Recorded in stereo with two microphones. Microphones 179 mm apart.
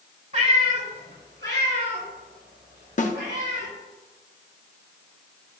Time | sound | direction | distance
0.3 | a cat meowing | 40° right (ahead or behind) | 1.5 m
3.0 | a snare drum | 45° left (ahead or behind) | 0.7 m